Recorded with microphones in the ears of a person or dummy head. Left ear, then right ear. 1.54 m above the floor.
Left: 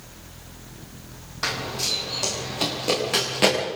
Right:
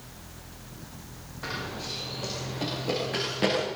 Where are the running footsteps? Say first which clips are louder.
Left 8 dB; 50° left (ahead or behind), 6 m; by 3.6 s 30° left (ahead or behind), 8 m.